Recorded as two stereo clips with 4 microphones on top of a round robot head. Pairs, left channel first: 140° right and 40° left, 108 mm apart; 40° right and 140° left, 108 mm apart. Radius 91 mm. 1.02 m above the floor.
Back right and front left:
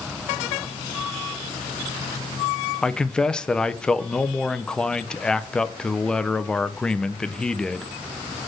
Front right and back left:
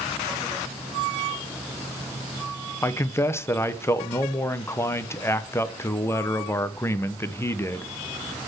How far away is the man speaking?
About 0.8 m.